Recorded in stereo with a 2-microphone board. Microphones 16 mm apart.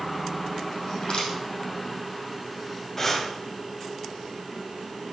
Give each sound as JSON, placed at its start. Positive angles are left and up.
{"t": 0.9, "sound": "crushing", "side_deg": 70, "distance_m": 6.5}
{"t": 3.0, "sound": "breathing", "side_deg": 20, "distance_m": 1.7}